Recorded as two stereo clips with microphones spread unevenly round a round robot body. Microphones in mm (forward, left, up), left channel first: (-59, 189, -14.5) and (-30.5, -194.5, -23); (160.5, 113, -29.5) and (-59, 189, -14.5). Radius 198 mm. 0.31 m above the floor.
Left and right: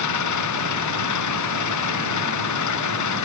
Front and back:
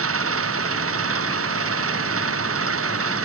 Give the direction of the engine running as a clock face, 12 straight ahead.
7 o'clock.